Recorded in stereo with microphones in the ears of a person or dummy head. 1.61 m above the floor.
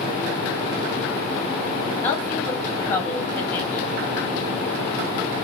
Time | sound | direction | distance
2.0 | a woman speaking | 10° left (ahead or behind) | 1.5 m